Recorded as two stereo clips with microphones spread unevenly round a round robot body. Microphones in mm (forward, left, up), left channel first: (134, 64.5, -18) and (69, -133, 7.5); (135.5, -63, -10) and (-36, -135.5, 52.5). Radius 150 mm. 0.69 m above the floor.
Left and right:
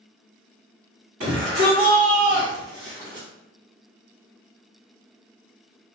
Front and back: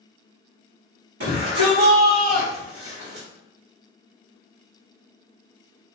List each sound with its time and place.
1.2 s a shout: 135° right, 1.6 m; by 3.3 s 170° left, 1.6 m